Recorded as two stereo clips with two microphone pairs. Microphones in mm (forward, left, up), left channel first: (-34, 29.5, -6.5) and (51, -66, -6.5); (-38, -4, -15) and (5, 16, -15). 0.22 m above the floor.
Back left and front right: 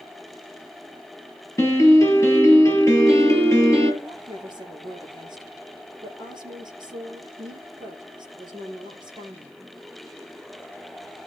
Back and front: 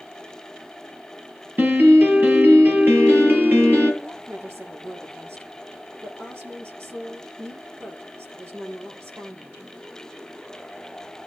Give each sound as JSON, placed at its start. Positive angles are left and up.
{"t": 1.6, "sound": "a piano", "azimuth_deg": 65, "distance_m": 5.0}
{"t": 4.0, "sound": "a woman speaking", "azimuth_deg": 5, "distance_m": 4.5}